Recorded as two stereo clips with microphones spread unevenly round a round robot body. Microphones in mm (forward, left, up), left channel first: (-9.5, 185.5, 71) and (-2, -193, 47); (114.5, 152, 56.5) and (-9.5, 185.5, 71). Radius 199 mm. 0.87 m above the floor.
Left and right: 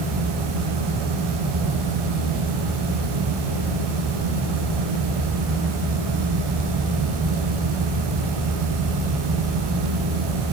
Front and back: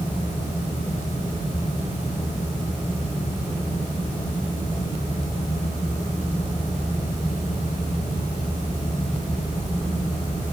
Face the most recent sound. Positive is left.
No sound to turn to.